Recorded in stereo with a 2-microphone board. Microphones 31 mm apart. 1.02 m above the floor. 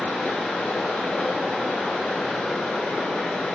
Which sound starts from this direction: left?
Running water, at 0.0 s.